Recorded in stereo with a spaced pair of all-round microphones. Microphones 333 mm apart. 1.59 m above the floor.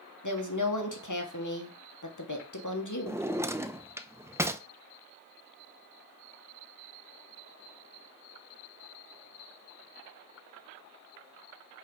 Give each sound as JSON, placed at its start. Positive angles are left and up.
{"t": 0.2, "sound": "a woman speaking", "side_deg": 60, "distance_m": 1.7}
{"t": 3.1, "sound": "a drawer", "side_deg": -10, "distance_m": 0.6}